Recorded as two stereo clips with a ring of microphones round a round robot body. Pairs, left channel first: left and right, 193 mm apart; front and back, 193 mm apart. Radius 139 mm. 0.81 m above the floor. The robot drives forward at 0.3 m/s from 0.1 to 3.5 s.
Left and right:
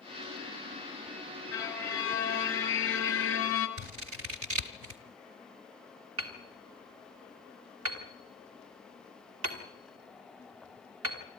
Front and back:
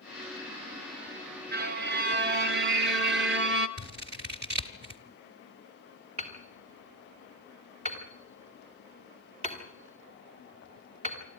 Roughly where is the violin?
Behind.